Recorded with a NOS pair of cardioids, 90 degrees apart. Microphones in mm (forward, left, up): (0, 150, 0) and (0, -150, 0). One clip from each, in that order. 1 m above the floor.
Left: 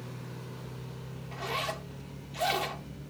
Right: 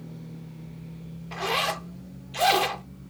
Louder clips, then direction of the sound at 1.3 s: Right 7 dB; 35° right.